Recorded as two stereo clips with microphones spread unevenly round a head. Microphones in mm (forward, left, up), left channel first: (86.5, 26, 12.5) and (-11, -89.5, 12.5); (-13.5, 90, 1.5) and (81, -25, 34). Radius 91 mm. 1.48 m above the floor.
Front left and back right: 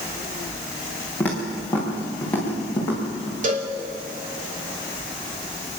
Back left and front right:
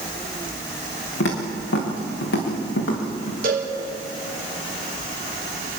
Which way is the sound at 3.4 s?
95° right.